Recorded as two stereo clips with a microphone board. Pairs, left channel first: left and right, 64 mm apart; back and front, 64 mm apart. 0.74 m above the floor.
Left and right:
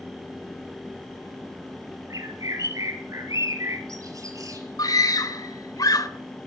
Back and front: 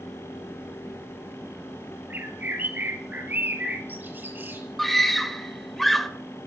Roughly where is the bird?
Ahead right.